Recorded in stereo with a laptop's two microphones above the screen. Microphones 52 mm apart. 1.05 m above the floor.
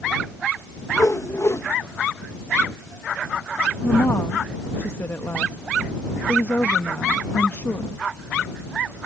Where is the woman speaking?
45° left (ahead or behind).